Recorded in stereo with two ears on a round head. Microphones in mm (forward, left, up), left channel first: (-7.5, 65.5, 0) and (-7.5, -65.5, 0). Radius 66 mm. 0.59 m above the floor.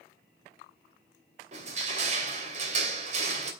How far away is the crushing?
About 2.5 m.